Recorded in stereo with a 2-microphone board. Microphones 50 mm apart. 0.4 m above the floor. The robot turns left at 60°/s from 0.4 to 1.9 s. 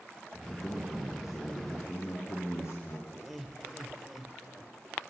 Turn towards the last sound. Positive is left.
turn(degrees=0)  # may be behind; listen again after turning